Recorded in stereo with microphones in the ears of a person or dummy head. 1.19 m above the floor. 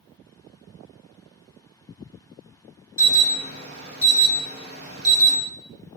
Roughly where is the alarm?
Right.